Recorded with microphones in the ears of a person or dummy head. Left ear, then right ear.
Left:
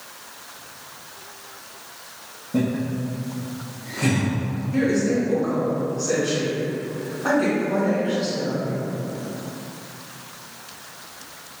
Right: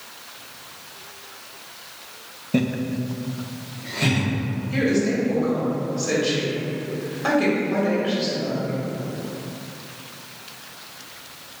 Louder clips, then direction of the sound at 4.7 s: Even; 45° right (ahead or behind).